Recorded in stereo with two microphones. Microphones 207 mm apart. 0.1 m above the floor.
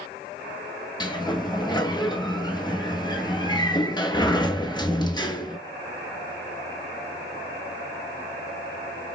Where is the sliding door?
20° left (ahead or behind), 0.8 m.